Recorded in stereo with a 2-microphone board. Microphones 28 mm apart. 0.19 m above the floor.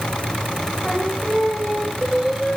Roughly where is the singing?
Centre.